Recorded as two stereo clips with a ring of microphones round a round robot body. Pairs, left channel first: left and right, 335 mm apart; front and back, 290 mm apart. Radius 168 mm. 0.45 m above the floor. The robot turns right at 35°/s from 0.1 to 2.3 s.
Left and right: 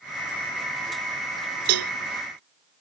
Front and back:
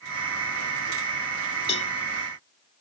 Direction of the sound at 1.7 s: 75° right.